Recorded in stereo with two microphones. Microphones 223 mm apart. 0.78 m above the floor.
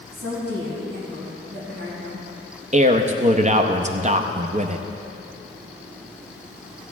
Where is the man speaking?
30° right (ahead or behind), 0.6 m.